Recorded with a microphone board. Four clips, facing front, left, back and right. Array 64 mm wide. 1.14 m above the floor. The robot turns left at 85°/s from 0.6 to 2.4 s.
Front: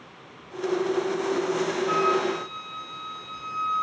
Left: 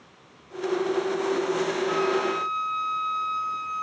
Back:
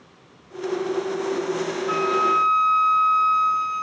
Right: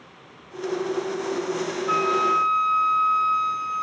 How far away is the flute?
About 8.5 m.